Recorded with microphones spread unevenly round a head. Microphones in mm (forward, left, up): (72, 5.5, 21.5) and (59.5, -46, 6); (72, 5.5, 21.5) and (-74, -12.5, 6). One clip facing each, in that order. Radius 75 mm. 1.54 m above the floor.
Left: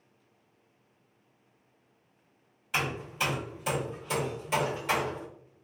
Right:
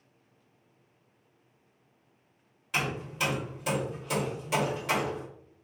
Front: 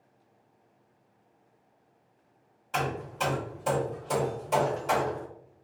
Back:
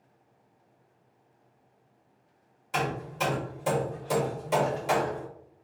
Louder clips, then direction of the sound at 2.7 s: Even, back 1 dB; 110° left.